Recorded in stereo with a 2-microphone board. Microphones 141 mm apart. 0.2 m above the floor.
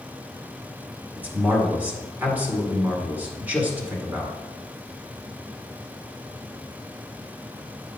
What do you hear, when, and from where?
1.2 s a man speaking: 10° right (ahead or behind), 1.6 m